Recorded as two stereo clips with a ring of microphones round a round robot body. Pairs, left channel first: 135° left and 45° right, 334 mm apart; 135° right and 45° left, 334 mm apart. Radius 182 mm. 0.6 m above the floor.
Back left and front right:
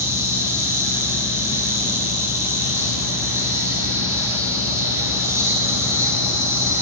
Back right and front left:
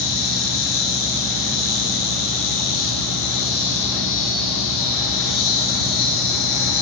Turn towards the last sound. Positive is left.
turn(degrees=-130)